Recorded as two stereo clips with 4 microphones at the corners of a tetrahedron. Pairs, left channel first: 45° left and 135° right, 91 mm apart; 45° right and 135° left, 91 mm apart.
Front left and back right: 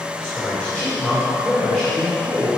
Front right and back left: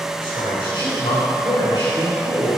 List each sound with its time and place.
0.2 s a man speaking: 30° right, 4 m